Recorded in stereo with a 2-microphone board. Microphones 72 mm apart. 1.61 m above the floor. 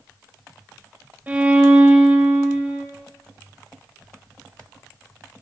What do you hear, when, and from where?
1.3 s a violin: 20° right (ahead or behind), 4 m